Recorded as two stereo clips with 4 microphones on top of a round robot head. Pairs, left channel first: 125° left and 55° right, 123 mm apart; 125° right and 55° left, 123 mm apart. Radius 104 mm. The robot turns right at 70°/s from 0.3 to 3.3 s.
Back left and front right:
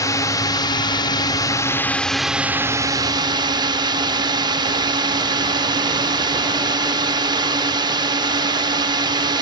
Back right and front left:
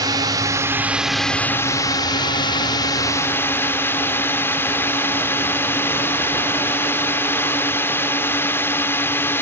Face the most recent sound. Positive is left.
turn(degrees=-65)